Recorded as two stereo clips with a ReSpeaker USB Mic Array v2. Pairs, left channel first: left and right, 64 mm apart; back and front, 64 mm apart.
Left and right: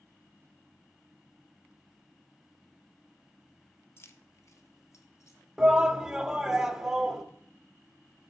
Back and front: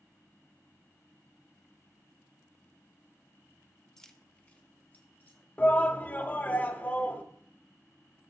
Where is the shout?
160° right, 0.8 m.